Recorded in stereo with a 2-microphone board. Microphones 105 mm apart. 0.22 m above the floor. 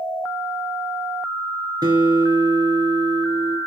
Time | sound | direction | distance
1.8 | a guitar | 40° right (ahead or behind) | 3 m